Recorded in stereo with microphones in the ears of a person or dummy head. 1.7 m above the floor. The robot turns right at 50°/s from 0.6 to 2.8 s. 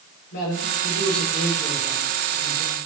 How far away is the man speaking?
About 6.5 m.